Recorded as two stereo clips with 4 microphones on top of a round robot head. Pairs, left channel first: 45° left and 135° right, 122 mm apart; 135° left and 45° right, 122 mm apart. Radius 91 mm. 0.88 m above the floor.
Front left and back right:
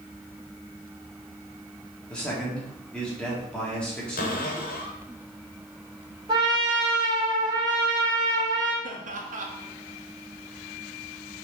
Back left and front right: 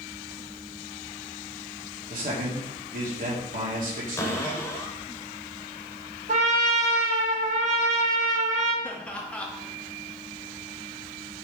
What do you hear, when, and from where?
2.1 s a man speaking: 40° right, 2 m
4.2 s a cupboard door: 60° left, 1.1 m
6.3 s a trumpet: 75° right, 1.4 m
8.8 s laughter: 145° right, 1.6 m